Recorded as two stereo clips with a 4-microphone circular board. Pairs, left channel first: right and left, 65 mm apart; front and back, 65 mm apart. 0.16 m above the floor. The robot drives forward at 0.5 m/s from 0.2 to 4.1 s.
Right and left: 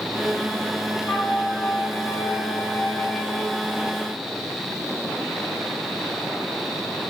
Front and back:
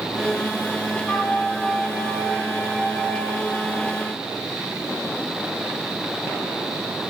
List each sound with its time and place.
1.1 s a flute: 85° right, 2.5 m; by 4.0 s 120° right, 2.5 m